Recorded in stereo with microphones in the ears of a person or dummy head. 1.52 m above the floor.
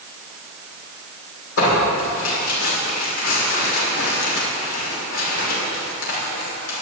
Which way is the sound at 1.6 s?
80° left.